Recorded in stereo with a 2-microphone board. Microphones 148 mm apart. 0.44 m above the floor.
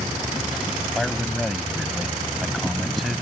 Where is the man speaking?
Centre (ahead or behind).